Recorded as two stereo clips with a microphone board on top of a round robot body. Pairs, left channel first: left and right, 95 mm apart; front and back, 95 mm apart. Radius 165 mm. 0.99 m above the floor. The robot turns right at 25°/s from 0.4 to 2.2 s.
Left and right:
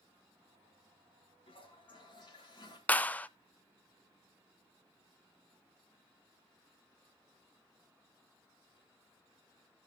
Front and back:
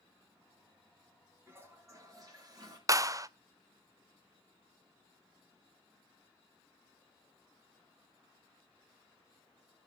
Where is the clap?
155° left, 0.6 m.